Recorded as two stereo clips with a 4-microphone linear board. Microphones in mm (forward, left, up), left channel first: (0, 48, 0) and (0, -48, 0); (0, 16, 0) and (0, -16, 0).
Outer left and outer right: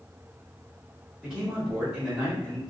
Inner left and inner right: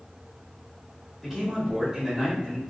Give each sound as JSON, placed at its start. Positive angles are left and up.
{"t": 1.2, "sound": "a man speaking", "side_deg": -10, "distance_m": 1.4}